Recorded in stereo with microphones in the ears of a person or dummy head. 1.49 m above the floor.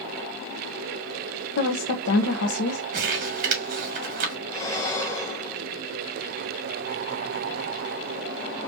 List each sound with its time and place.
1.6 s a woman speaking: 75° left (ahead or behind), 0.9 m
2.9 s crumpling: 50° right (ahead or behind), 1.9 m
4.5 s breathing: 20° left (ahead or behind), 1.4 m